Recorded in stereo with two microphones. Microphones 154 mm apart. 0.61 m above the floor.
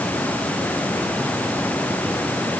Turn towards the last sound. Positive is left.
No sound to turn to.